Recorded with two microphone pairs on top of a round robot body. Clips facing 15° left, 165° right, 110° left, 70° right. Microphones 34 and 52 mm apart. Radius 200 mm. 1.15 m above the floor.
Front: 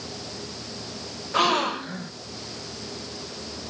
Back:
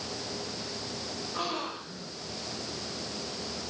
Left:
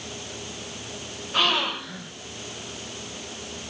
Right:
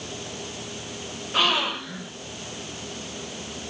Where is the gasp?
20° left, 1.4 m.